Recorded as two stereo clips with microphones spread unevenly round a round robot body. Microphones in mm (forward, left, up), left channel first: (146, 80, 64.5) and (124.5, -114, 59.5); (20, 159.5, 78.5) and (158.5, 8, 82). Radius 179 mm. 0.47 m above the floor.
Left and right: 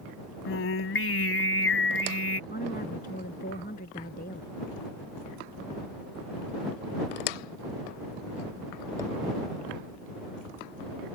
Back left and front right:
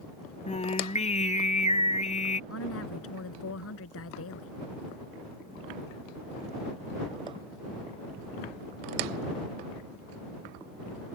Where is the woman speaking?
145° left.